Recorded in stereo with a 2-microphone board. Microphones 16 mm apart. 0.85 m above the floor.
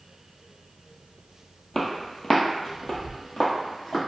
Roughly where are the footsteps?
Left.